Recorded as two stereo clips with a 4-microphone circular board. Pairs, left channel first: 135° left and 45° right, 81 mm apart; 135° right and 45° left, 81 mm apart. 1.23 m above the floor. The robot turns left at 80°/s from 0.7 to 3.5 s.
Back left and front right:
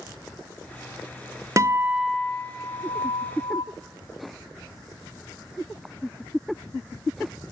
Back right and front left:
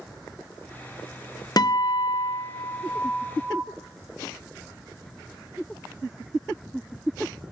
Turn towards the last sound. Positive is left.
turn(degrees=110)